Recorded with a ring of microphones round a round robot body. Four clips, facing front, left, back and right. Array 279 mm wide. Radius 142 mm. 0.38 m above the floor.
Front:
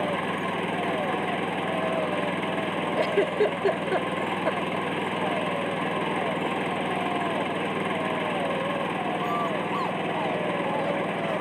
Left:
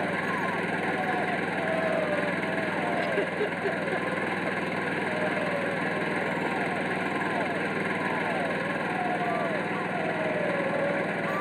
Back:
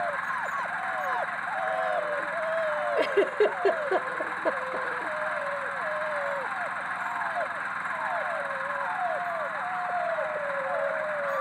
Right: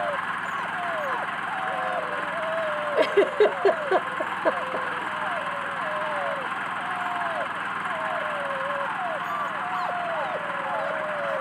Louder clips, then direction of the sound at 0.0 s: Right 1 dB, front 3 dB; 35° left.